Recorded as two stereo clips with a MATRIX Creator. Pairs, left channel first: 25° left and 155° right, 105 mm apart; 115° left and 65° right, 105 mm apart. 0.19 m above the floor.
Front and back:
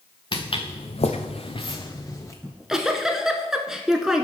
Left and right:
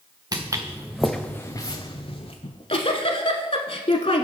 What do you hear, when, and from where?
0.3 s footsteps: 20° right, 1.0 m; by 2.3 s 85° left, 1.3 m
2.4 s a giggle: 120° left, 0.7 m